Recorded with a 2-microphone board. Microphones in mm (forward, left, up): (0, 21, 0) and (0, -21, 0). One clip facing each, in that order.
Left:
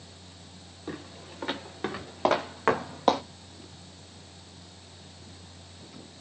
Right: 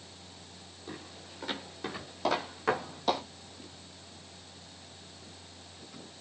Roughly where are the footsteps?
Left.